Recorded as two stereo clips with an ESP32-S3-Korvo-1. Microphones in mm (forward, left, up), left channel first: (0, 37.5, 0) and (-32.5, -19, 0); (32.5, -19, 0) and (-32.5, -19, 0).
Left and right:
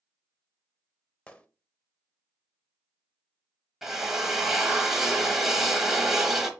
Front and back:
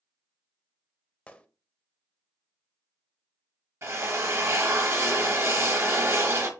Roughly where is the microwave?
I don't hear a microwave.